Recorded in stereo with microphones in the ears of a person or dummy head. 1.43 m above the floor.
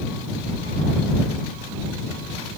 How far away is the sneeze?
I don't hear a sneeze.